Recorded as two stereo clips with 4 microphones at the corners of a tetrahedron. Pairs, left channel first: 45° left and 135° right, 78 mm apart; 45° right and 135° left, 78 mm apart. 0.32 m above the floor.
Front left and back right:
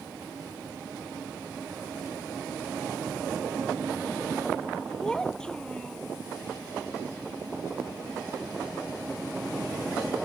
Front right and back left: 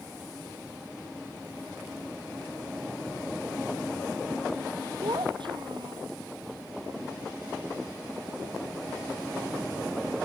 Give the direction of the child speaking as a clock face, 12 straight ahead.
8 o'clock.